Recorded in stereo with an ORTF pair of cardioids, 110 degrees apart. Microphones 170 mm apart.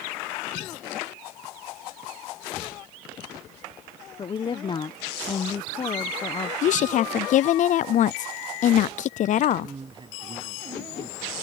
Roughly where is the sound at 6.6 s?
Ahead left.